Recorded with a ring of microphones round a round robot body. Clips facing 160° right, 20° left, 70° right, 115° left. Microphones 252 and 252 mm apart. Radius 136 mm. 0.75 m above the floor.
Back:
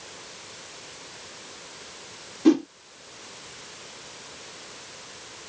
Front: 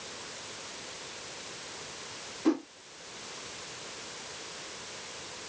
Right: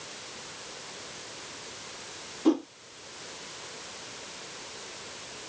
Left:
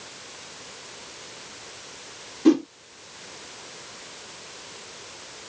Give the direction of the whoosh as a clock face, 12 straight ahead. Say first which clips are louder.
Back 9 dB, left 6 dB; 6 o'clock.